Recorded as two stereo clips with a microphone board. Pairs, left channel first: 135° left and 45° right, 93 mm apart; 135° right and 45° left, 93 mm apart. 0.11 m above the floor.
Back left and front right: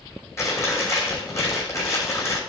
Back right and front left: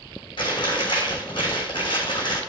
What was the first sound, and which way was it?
Chewing, 165° right.